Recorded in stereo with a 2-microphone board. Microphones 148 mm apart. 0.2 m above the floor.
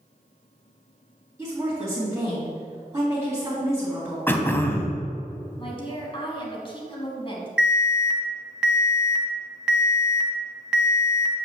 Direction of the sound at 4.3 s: 15° left (ahead or behind).